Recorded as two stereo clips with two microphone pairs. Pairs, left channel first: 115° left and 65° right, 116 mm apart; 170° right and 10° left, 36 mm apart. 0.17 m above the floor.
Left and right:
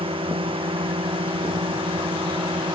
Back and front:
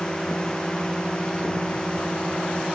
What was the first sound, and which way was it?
A drone, 100° right.